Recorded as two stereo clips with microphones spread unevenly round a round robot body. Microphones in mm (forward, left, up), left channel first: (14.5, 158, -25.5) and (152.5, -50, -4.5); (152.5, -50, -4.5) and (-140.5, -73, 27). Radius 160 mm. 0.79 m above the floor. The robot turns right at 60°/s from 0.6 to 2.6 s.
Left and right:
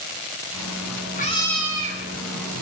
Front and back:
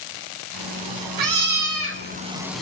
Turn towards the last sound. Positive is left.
turn(degrees=-85)